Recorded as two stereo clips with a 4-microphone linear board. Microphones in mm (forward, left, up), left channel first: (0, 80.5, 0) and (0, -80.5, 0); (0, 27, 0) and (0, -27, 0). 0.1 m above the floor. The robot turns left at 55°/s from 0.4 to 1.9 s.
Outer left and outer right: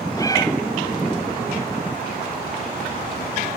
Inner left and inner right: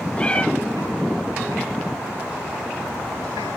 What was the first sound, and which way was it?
A cat meowing, 20° left (ahead or behind).